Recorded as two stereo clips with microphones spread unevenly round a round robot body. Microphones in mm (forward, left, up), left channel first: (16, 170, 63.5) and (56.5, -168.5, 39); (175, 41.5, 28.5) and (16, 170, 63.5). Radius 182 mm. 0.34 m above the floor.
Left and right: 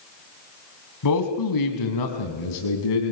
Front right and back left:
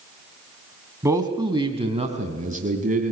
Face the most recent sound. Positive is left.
turn(degrees=90)